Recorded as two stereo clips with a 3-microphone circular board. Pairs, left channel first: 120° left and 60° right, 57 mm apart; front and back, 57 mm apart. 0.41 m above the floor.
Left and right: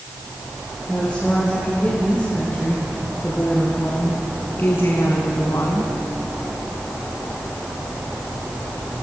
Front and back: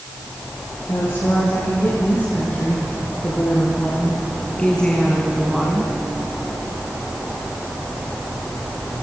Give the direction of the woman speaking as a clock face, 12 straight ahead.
11 o'clock.